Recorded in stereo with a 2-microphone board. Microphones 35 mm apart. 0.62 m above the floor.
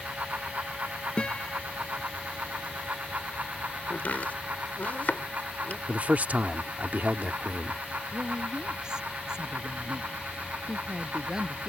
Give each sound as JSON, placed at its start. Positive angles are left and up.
{"t": 1.2, "sound": "a guitar", "side_deg": 30}
{"t": 3.9, "sound": "chopping", "side_deg": 55}
{"t": 5.9, "sound": "a man speaking", "side_deg": -50}
{"t": 8.1, "sound": "a woman speaking", "side_deg": -25}